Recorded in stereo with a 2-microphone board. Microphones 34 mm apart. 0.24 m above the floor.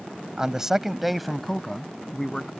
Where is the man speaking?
20° right (ahead or behind); by 2.5 s 15° left (ahead or behind).